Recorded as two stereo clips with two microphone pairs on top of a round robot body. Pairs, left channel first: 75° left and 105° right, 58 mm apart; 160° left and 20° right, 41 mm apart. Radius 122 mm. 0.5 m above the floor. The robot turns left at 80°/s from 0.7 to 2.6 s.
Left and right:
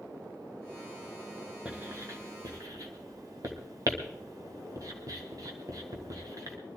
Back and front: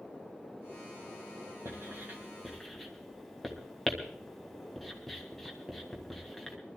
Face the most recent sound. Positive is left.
turn(degrees=-115)